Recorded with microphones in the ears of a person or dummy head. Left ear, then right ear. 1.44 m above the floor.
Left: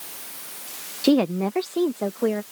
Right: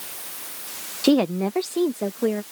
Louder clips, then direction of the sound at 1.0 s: Even; centre (ahead or behind).